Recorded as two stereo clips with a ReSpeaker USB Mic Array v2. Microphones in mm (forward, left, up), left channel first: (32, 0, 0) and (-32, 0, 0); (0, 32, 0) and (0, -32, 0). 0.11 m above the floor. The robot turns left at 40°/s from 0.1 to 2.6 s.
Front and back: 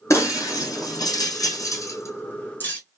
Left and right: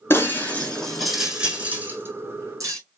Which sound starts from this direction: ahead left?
Breaking glass, at 0.1 s.